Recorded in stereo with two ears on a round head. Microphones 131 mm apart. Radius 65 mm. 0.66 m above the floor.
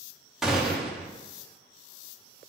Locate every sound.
0.4 s a gunshot: 5° right (ahead or behind), 0.9 m